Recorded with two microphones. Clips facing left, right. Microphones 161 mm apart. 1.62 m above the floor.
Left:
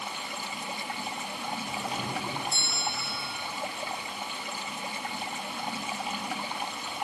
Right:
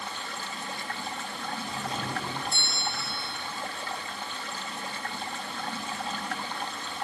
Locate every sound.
0.0 s running water: 15° left (ahead or behind), 1.1 m
1.6 s a doorbell: centre (ahead or behind), 9 m